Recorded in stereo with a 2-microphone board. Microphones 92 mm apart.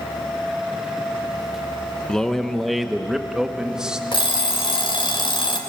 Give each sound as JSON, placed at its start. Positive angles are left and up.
{"t": 2.1, "sound": "a man speaking", "side_deg": 5, "distance_m": 0.9}
{"t": 4.1, "sound": "an alarm clock", "side_deg": 65, "distance_m": 2.5}